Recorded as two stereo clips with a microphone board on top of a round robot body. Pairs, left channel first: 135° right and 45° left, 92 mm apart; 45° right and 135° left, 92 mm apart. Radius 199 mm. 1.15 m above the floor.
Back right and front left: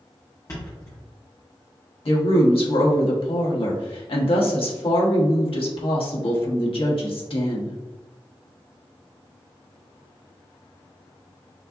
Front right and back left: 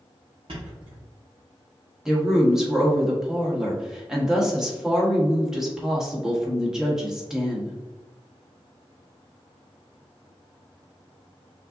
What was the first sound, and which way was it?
A thud, 165° left.